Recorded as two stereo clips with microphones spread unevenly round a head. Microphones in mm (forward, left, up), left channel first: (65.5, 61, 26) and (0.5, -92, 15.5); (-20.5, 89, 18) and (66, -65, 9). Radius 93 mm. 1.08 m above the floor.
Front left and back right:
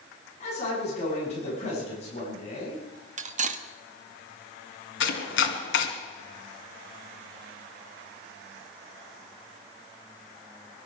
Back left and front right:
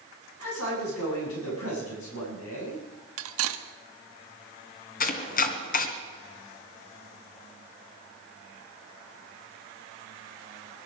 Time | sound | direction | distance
0.4 | a man speaking | 125° left | 7 m
3.2 | cutlery clinking | 65° right | 1.2 m
5.0 | chopping | 85° left | 2 m